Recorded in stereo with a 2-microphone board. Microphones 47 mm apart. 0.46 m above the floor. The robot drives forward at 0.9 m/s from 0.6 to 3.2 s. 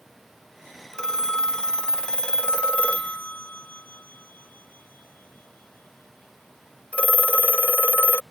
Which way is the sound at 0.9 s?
15° left (ahead or behind).